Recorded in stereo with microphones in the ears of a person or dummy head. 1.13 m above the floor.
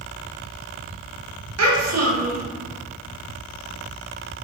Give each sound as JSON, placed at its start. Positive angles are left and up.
{"t": 1.6, "sound": "a child speaking", "side_deg": -80, "distance_m": 0.9}